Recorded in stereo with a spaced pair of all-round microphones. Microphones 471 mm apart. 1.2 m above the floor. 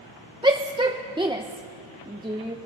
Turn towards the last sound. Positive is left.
turn(degrees=-10)  # may be behind; listen again after turning